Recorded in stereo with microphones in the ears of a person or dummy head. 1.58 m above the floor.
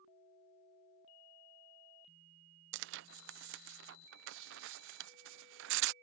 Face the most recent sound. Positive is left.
turn(degrees=-65)  # may be behind; listen again after turning